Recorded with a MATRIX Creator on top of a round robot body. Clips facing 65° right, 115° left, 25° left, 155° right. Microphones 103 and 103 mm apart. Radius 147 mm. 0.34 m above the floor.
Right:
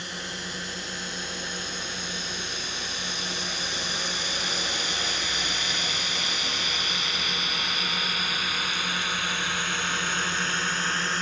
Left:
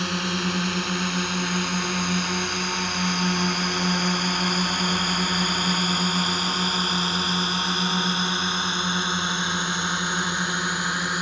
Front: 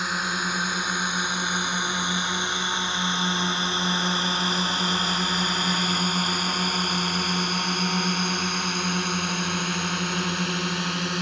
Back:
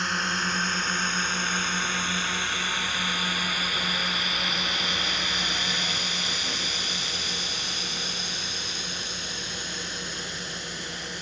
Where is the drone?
105° left; by 11.2 s 35° left.